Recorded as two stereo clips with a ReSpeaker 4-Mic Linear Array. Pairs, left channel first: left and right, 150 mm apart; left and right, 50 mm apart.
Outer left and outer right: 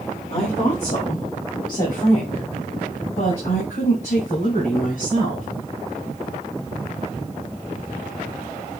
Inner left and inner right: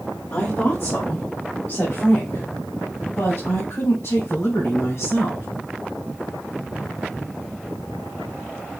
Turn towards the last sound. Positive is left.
turn(degrees=70)  # may be behind; listen again after turning